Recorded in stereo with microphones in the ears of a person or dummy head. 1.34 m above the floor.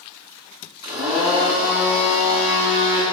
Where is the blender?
30° right (ahead or behind), 1.1 m.